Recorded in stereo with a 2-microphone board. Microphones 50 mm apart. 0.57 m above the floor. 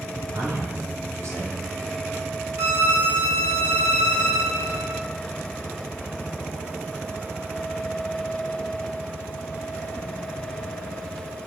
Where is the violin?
70° right (ahead or behind), 1.2 m.